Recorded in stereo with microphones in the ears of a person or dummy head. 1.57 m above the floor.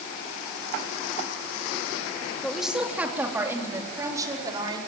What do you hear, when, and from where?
2.4 s a woman speaking: centre (ahead or behind), 3.5 m; by 4.8 s 25° right (ahead or behind), 5.5 m